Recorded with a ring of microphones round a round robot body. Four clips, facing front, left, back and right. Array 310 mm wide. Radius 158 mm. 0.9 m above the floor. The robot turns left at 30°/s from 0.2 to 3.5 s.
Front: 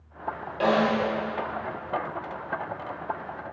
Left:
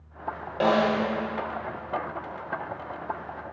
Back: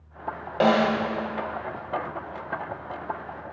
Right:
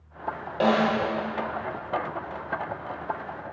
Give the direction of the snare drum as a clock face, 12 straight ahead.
6 o'clock.